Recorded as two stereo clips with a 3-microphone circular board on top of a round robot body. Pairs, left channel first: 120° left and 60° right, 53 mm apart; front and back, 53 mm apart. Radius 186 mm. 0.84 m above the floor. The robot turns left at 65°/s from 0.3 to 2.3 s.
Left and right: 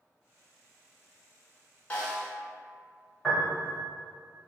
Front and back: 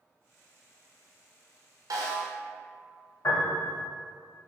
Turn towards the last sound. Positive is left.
turn(degrees=20)